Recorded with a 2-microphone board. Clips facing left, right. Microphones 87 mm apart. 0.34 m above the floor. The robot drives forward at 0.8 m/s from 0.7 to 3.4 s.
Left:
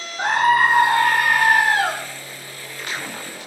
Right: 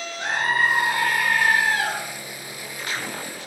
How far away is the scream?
About 3 m.